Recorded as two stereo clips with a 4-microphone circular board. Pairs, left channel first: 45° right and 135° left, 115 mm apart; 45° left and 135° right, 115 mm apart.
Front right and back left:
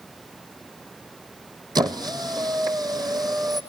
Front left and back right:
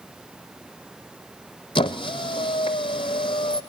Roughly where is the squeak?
Left.